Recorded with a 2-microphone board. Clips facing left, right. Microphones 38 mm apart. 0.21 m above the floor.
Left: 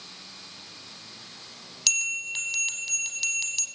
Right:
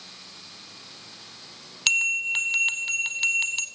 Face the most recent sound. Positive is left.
turn(degrees=-40)  # may be behind; listen again after turning